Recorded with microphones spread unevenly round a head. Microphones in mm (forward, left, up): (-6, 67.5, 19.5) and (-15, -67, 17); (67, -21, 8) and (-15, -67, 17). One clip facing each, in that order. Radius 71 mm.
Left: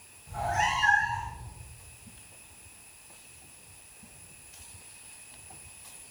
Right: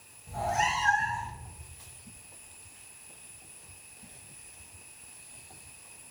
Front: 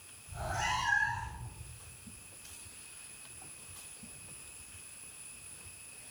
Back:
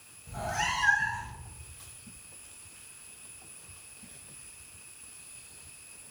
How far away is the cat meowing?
About 4.5 m.